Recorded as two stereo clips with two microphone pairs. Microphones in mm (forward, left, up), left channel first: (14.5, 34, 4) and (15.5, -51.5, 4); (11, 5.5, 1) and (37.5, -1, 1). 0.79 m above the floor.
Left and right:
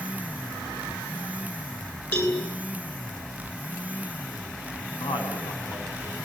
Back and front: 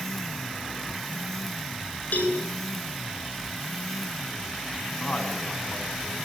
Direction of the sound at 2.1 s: 145° left.